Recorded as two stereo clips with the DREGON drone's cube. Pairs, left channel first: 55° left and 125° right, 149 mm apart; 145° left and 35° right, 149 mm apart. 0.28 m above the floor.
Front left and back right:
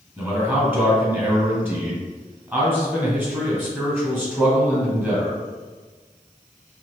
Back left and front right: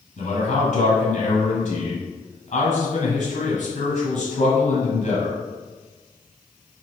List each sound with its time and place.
0.2 s a man speaking: 160° left, 2.0 m